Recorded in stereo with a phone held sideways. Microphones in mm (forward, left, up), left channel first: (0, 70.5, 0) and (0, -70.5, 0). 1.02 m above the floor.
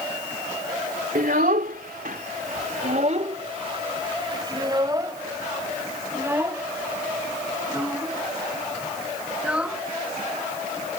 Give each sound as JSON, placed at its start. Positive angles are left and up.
{"t": 1.1, "sound": "a child speaking", "side_deg": -70}